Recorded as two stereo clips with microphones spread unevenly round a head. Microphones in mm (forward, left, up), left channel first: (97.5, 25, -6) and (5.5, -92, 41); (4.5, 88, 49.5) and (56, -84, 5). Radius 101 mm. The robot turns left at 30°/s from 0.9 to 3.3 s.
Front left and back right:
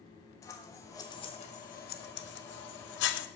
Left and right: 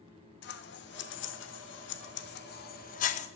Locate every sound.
0.4 s scissors: 135° left, 0.7 m; by 3.3 s 65° left, 0.7 m